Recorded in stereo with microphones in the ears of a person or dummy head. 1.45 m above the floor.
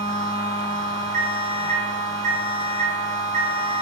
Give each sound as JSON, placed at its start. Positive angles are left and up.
{"t": 0.0, "sound": "a machine running", "side_deg": -40, "distance_m": 1.2}
{"t": 1.1, "sound": "an alarm clock", "side_deg": -55, "distance_m": 1.7}